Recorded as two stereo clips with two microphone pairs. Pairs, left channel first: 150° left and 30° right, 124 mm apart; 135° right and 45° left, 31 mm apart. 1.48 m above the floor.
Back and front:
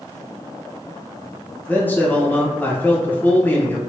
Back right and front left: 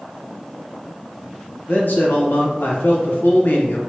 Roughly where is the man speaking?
Behind right.